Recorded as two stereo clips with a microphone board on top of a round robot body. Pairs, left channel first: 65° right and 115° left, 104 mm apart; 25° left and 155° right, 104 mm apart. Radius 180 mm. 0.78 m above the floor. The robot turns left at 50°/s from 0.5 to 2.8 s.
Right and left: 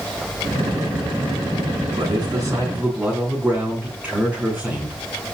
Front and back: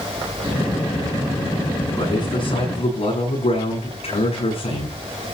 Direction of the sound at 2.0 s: 80° left.